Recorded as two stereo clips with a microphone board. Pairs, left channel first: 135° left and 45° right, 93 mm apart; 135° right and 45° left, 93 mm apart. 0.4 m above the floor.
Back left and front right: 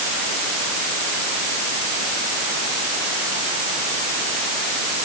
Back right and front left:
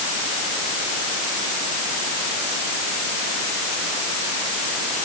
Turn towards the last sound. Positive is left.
No sound to turn to.